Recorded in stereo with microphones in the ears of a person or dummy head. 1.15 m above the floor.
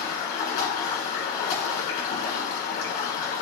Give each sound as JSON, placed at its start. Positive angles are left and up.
{"t": 0.0, "sound": "running water", "side_deg": 50, "distance_m": 1.5}